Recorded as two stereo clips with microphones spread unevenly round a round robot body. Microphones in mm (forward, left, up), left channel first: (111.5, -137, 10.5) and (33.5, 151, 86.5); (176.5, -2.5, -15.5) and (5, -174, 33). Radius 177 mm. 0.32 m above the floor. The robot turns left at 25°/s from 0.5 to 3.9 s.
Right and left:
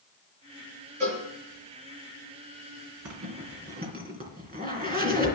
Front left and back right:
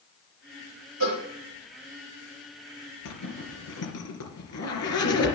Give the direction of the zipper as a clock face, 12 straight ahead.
10 o'clock.